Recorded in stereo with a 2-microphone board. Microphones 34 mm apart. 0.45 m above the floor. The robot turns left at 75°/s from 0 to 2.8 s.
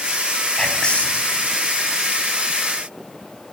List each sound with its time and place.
0.6 s whispering: 170° left, 4 m; by 1.2 s 120° left, 4 m